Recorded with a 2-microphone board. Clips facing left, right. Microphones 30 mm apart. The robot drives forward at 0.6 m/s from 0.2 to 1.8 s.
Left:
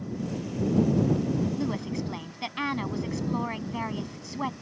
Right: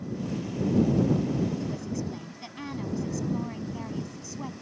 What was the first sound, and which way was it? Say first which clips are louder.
A woman speaking: left 2 dB; 45° left (ahead or behind).